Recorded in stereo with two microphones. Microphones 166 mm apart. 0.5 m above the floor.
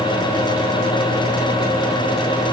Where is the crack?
No crack in this recording.